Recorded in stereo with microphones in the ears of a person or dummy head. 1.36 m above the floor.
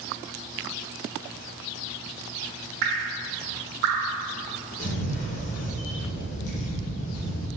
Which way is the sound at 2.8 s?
45° right (ahead or behind).